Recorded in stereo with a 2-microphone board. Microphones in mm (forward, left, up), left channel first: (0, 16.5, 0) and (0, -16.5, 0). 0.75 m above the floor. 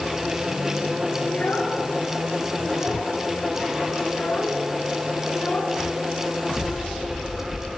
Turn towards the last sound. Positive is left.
turn(degrees=85)